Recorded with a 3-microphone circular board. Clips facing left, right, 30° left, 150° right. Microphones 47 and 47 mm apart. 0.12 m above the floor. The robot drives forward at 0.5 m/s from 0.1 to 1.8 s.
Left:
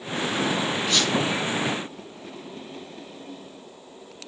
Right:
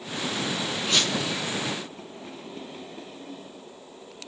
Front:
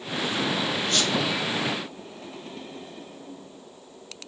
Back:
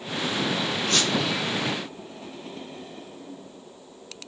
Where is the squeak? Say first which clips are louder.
Right 1 dB, back 2 dB; 170° right, 1.5 m.